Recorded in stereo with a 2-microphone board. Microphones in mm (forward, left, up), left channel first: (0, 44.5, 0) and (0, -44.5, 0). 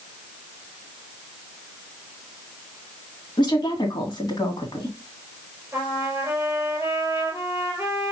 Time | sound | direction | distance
3.4 | a woman speaking | 50° left (ahead or behind) | 1.8 m
5.7 | a trumpet | 25° right (ahead or behind) | 3.5 m